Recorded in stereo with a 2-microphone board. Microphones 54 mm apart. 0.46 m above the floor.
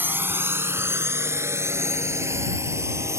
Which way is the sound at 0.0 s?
40° right (ahead or behind).